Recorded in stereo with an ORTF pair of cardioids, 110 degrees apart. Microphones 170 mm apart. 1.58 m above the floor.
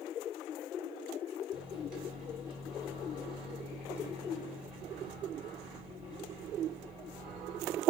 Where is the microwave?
5° right, 2 m.